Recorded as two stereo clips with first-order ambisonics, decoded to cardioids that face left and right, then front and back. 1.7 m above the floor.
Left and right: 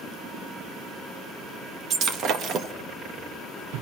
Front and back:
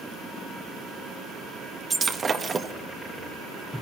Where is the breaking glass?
115° right, 1.2 m.